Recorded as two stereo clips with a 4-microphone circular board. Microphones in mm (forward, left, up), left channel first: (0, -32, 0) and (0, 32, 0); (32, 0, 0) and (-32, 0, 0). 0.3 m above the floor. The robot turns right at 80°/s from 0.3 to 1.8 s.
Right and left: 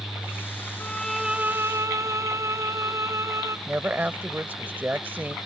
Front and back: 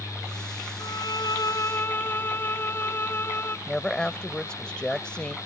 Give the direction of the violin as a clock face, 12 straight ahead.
1 o'clock.